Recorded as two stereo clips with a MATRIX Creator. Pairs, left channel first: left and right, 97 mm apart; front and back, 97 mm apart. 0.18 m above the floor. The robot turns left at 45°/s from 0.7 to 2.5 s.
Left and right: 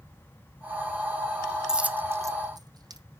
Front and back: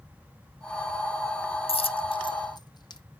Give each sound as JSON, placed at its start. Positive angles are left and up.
{"t": 1.7, "sound": "a dropped coin", "azimuth_deg": -5, "distance_m": 0.8}